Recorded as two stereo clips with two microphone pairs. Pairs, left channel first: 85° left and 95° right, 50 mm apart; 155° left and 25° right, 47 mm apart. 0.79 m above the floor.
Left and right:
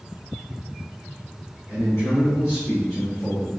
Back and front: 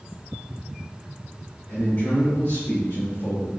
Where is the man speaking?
140° left, 2.0 m; by 3.5 s 170° left, 2.5 m.